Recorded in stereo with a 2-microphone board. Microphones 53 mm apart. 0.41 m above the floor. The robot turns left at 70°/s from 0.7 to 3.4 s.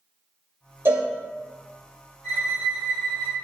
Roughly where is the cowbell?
Right.